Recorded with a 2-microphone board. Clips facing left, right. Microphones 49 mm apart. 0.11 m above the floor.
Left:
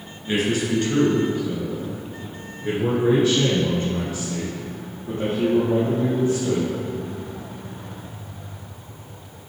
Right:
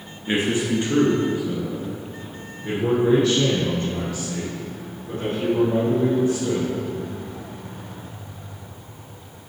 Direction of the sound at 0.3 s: 30° right (ahead or behind).